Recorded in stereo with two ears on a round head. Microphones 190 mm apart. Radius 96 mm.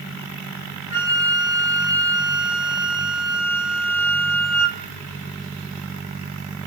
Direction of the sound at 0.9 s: 55° left (ahead or behind).